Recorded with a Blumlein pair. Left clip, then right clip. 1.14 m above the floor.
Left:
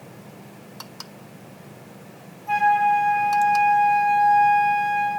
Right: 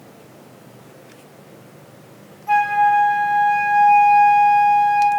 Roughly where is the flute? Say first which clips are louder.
Right 3 dB; ahead.